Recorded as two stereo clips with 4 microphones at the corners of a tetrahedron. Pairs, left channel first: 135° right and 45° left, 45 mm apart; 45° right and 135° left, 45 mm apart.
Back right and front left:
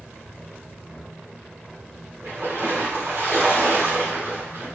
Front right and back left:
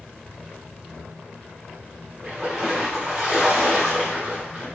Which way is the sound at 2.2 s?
60° left.